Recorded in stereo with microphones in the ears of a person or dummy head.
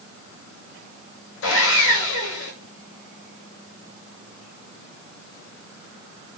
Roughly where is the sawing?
Left.